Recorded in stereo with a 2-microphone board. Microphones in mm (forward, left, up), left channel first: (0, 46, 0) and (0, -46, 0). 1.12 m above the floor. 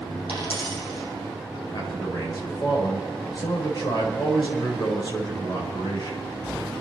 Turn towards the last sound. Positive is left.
turn(degrees=45)  # may be behind; listen again after turning